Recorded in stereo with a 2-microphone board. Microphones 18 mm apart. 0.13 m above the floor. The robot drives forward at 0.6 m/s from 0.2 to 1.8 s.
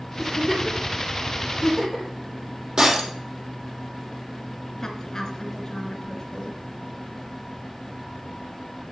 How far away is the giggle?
About 5.5 m.